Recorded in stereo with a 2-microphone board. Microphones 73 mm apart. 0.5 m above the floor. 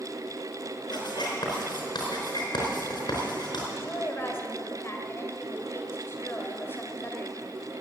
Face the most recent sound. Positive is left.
turn(degrees=35)  # may be behind; listen again after turning